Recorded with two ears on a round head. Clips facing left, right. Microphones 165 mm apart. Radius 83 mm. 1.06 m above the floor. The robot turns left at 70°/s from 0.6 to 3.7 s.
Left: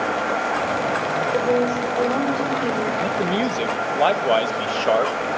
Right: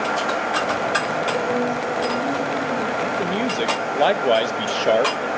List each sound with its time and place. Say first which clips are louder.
1.3 s a woman speaking: left 5 dB; 155° left, 2.5 m; by 2.9 s 45° left, 2.5 m
3.0 s a man speaking: left 1 dB; 35° left, 0.7 m; by 5.3 s 15° right, 0.7 m